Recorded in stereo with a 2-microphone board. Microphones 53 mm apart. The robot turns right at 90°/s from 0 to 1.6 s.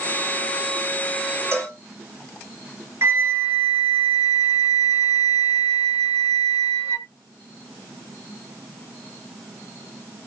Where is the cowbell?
50° right (ahead or behind), 2.5 m; by 1.8 s 60° right (ahead or behind), 2.5 m.